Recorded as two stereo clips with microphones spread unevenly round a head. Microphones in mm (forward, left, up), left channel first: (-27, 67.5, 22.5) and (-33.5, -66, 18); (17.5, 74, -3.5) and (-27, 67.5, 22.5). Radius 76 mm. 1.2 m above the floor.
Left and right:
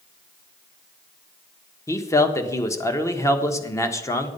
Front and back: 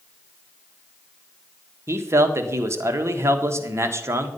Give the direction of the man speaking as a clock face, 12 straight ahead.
7 o'clock.